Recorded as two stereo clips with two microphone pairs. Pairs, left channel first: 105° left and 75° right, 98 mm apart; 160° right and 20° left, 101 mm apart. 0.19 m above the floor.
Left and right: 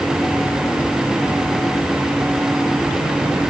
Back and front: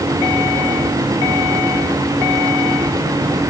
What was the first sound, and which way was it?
Only background noise.